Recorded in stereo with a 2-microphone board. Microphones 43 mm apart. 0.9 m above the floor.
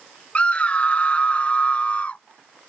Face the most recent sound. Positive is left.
turn(degrees=30)  # may be behind; listen again after turning